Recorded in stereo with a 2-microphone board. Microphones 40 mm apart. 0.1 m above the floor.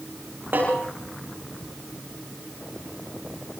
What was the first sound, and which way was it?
A snare drum, 60° right (ahead or behind).